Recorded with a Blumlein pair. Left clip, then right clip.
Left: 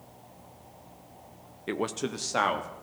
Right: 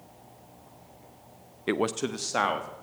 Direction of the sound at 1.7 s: 20° right.